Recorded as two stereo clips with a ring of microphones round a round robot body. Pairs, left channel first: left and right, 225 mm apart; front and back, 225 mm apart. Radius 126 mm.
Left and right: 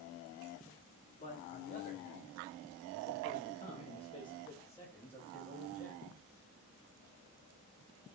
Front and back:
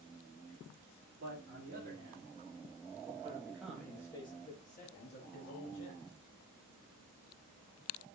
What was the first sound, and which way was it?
A man speaking, 145° left.